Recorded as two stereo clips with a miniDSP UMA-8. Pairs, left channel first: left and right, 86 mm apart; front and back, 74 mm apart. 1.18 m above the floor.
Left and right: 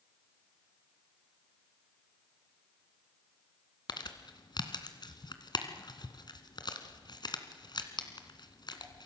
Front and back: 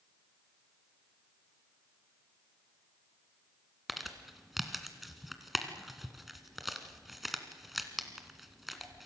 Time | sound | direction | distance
3.9 | crumpling | 90° left | 2 m